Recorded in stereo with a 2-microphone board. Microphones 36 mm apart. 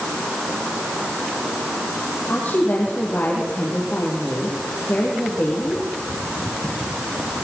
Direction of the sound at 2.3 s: 65° left (ahead or behind).